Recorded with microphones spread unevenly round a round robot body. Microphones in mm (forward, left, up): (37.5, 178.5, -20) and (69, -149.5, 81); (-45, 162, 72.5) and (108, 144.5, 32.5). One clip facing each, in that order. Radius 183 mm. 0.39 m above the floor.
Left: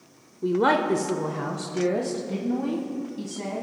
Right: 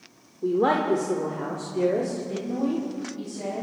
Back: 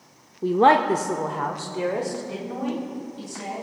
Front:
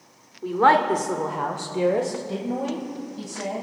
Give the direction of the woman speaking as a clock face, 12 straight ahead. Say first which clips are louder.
Even, back 2 dB; 8 o'clock.